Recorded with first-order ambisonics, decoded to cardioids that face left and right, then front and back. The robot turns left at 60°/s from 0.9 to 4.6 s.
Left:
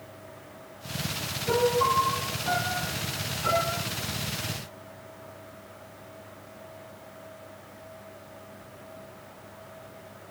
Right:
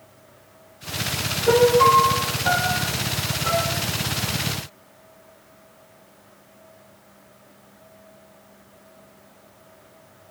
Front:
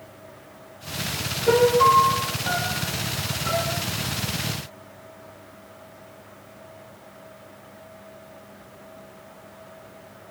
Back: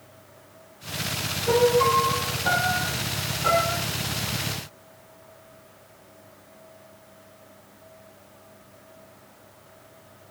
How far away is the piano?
About 0.6 m.